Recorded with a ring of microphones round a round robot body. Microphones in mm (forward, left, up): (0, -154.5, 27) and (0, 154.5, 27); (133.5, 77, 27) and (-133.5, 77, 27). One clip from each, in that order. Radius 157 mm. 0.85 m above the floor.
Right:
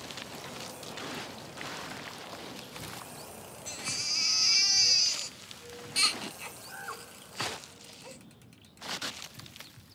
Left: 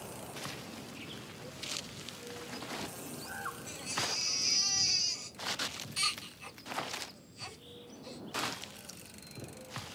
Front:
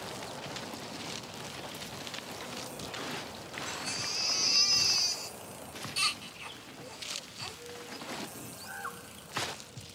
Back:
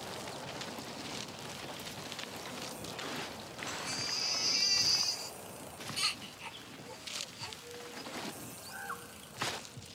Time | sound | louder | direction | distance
3.7 | a baby crying | right 4 dB, front 1 dB | 65° right | 0.9 m